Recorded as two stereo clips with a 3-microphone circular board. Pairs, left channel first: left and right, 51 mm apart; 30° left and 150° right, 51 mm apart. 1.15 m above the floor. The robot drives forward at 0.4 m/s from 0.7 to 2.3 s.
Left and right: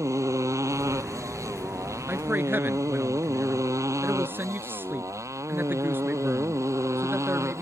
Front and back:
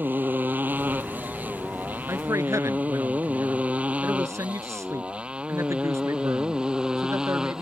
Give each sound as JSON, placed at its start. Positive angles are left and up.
{"t": 0.0, "sound": "a motorcycle", "azimuth_deg": -100}
{"t": 2.1, "sound": "a man speaking", "azimuth_deg": -140}